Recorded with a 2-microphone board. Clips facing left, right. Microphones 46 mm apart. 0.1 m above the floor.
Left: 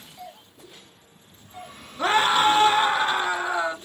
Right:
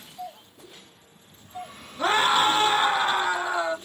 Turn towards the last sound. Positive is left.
turn(degrees=20)  # may be behind; listen again after turning